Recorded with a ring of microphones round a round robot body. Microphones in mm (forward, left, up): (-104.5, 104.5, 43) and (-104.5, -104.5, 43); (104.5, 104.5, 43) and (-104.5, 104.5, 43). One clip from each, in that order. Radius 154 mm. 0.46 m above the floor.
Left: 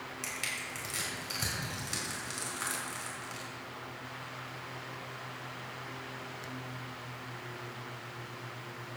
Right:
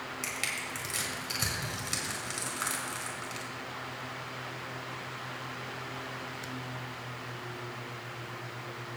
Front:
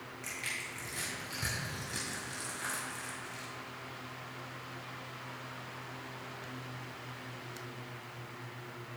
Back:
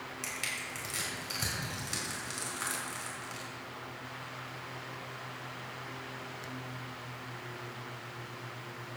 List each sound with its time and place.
0.2 s crushing: 145° right, 5 m